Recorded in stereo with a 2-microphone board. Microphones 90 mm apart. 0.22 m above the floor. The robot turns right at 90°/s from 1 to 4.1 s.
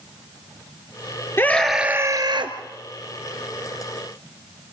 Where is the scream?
150° left, 3 m; by 2.6 s 100° right, 3 m.